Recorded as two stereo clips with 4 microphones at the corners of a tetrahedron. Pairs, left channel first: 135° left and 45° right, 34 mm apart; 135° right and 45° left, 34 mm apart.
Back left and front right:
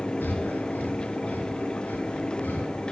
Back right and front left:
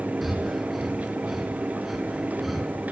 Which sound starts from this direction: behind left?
Breathing, at 0.2 s.